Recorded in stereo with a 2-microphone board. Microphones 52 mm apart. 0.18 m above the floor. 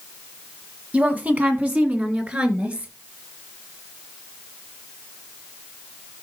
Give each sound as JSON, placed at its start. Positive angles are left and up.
{"t": 0.9, "sound": "a woman speaking", "side_deg": -25, "distance_m": 1.3}